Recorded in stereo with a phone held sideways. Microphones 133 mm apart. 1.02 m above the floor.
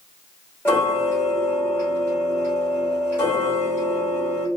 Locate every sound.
0.7 s ticking: 15° left (ahead or behind), 1.1 m